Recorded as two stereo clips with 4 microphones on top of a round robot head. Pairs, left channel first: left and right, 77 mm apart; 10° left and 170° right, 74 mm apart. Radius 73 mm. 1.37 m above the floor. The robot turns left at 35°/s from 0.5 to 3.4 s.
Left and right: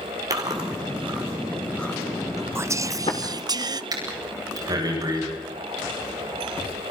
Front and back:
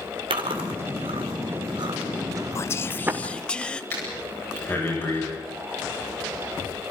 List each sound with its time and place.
0.3 s chewing: 145° right, 2.5 m; by 3.2 s 120° left, 2.5 m
2.5 s whispering: 35° right, 0.8 m; by 3.8 s 65° right, 0.8 m
3.9 s breathing: 55° right, 9 m